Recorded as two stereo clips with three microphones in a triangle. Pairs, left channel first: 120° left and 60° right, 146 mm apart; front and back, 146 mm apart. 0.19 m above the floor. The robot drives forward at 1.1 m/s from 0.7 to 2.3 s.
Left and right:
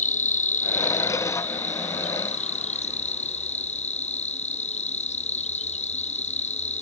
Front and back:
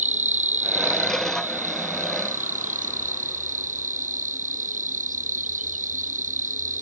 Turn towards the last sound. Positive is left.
turn(degrees=155)